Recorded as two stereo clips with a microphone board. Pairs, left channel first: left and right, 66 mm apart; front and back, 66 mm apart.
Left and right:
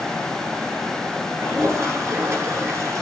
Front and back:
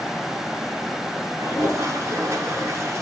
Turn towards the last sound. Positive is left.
turn(degrees=-135)